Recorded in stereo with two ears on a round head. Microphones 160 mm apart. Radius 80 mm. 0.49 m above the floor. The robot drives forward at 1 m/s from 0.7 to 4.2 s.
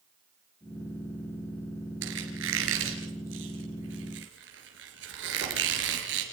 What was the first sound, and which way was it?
A squeak, 75° right (ahead or behind).